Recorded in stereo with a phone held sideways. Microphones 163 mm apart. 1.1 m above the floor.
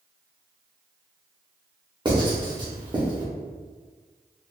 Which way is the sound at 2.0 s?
30° right (ahead or behind).